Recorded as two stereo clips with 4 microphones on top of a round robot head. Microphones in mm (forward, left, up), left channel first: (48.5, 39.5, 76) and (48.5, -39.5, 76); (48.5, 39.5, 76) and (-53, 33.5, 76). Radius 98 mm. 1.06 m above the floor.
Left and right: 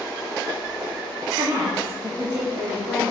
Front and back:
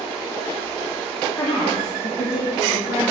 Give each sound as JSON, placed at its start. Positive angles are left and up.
{"t": 1.4, "sound": "a woman speaking", "azimuth_deg": -45, "distance_m": 1.6}